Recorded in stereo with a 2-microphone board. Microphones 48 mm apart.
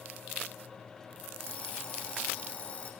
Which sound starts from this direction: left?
An alarm clock, at 1.4 s.